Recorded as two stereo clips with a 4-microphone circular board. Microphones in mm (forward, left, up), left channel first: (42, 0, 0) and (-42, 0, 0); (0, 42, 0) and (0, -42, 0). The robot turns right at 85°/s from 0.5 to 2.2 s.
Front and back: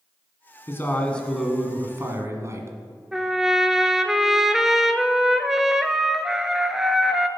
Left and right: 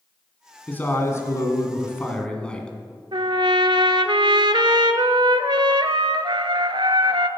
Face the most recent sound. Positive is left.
turn(degrees=-95)